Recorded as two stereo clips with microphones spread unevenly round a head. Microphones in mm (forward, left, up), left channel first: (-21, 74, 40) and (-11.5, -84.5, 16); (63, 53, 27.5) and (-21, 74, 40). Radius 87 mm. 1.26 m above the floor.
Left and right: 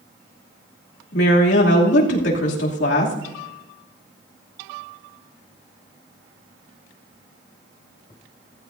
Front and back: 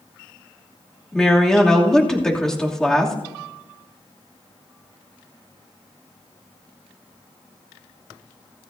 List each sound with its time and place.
1.1 s a woman speaking: 70° left, 2.5 m